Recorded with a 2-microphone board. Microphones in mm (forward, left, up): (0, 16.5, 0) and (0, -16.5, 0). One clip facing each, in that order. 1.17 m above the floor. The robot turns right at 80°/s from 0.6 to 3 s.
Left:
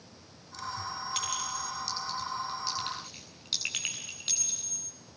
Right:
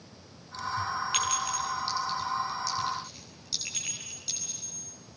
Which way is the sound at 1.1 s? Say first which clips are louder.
Right 4 dB; 80° right.